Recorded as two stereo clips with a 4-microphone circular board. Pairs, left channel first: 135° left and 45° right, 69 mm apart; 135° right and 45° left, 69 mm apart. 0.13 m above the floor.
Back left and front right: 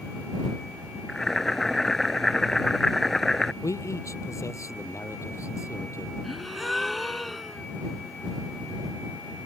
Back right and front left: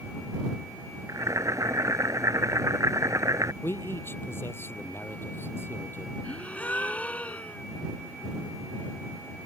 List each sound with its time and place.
1.1 s boiling: 50° left
3.6 s a man speaking: 170° left
6.2 s a gasp: 135° right